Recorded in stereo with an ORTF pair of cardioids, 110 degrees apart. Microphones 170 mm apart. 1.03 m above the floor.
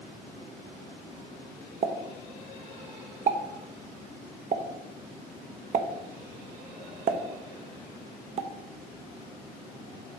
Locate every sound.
1.8 s a pop: 45° right, 0.8 m